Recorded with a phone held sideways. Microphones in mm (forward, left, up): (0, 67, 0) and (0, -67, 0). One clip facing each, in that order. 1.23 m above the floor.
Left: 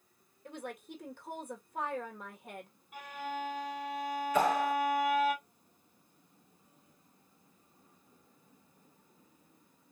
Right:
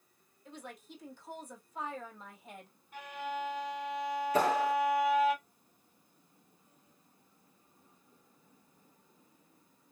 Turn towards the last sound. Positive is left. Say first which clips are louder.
# even
turn(degrees=-35)  # may be behind; listen again after turning